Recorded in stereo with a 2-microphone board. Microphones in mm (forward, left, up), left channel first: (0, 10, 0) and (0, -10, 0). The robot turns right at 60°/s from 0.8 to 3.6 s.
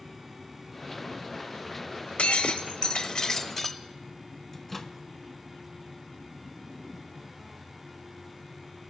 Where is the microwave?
15° left (ahead or behind), 0.9 m.